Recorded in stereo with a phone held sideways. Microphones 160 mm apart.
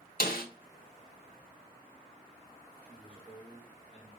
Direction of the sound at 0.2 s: 70° left (ahead or behind).